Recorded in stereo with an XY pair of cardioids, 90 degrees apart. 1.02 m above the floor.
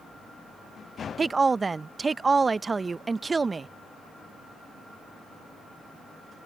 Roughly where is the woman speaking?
Ahead right.